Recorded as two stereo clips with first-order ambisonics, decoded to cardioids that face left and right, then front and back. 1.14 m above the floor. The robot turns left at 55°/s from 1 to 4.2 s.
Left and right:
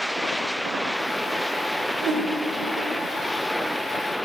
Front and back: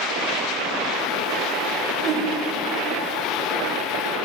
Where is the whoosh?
125° right, 1.4 m; by 2.3 s 140° right, 1.4 m.